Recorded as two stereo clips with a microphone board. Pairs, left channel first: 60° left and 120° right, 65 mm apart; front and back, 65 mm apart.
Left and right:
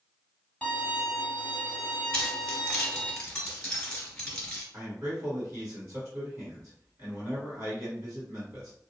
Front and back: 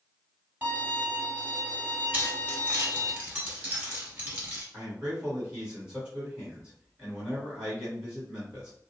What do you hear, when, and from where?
0.6 s a violin: 130° left, 1.2 m
2.1 s keys jangling: 130° left, 1.4 m
4.7 s a man speaking: 115° right, 1.9 m